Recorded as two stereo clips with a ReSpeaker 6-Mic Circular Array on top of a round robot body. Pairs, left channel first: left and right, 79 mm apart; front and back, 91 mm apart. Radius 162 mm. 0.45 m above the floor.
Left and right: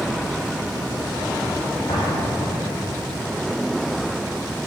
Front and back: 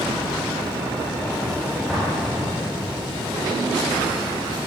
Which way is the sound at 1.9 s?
95° left.